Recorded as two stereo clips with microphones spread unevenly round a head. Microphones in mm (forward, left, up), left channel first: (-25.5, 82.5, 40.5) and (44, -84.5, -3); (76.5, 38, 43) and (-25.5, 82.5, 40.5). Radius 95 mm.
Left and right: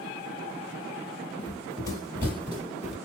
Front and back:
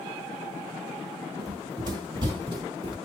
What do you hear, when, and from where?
1.4 s running footsteps: 125° left, 1.6 m; by 3.0 s 170° right, 1.6 m